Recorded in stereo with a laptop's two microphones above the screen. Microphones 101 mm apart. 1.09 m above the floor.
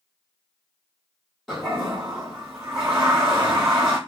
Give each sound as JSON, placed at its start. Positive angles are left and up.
{"t": 1.5, "sound": "a toilet flushing", "side_deg": 0, "distance_m": 1.4}